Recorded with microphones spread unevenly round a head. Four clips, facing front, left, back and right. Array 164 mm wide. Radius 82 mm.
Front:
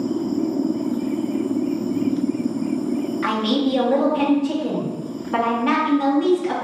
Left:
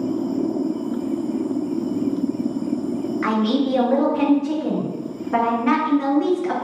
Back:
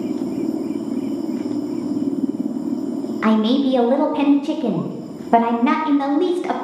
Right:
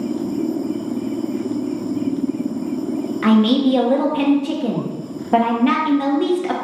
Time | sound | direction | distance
3.2 | a man speaking | 155° right | 0.6 m